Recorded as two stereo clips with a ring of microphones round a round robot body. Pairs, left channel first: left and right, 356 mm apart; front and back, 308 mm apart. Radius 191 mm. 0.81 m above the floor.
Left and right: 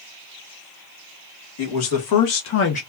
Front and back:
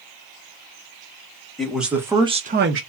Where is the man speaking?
90° left, 1.5 m; by 2.8 s 160° left, 0.6 m.